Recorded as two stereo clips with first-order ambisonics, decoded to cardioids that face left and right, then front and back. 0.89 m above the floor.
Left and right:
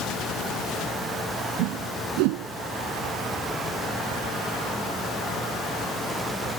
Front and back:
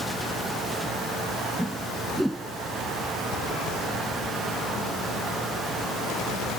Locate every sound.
1.6 s a whoosh: 90° right